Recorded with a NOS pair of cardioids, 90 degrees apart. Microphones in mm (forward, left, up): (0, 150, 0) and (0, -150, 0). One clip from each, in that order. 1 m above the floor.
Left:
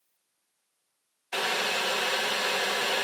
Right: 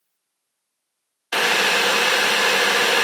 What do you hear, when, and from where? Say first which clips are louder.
1.3 s boiling: right 10 dB; 55° right, 0.7 m